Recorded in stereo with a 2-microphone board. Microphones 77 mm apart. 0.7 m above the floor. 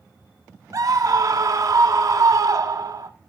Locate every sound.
0.7 s a scream: 50° right (ahead or behind), 1.3 m